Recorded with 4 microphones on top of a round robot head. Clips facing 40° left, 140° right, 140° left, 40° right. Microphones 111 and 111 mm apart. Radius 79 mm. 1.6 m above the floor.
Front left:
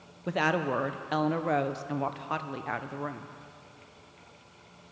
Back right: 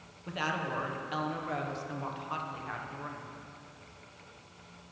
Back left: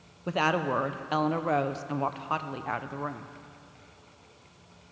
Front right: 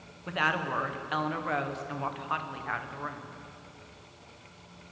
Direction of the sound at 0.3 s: 80° left.